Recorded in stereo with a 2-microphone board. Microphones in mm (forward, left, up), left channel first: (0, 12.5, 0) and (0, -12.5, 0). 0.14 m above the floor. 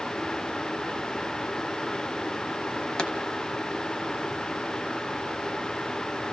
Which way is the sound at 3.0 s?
30° left (ahead or behind).